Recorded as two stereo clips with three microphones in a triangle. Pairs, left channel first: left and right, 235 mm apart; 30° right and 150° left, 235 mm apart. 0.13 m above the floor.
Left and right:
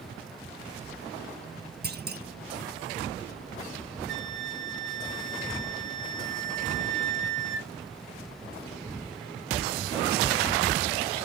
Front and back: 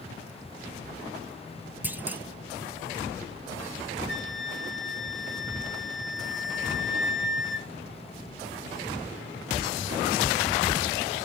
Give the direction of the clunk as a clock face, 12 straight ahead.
4 o'clock.